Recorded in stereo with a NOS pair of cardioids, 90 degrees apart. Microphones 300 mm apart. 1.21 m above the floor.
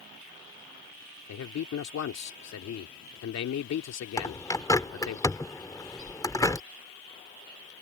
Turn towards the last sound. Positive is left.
turn(degrees=10)